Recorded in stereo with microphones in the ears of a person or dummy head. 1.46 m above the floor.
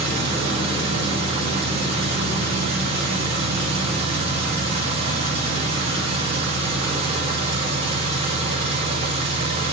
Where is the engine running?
35° right (ahead or behind), 4.5 m.